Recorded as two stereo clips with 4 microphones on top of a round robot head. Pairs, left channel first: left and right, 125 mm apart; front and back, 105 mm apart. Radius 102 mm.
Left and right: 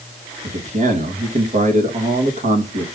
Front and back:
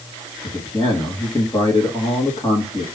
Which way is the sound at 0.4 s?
65° right.